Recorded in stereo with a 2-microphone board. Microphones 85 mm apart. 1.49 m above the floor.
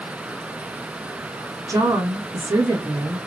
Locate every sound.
1.7 s a woman speaking: 50° right (ahead or behind), 1.5 m